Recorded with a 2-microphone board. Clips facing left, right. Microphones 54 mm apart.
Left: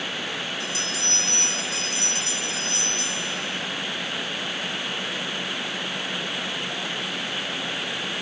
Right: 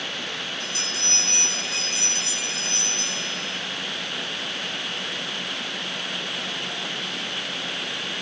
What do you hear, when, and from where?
0.6 s a bell: 40° right (ahead or behind), 6.5 m